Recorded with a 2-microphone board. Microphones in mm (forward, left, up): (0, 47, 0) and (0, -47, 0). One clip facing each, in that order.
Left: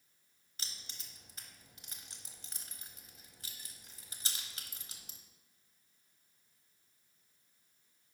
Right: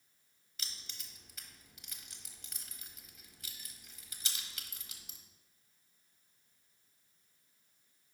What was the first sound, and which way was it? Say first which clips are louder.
Keys jangling: even; 35° left (ahead or behind).